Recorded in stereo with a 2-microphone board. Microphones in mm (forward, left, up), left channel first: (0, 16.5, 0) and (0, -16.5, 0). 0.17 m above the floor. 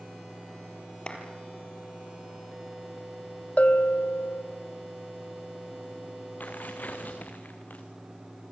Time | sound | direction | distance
1.1 | a clap | 30° left (ahead or behind) | 3.5 m
3.6 | a bell | 45° left (ahead or behind) | 1.2 m
6.4 | tearing paper | 55° left (ahead or behind) | 2.5 m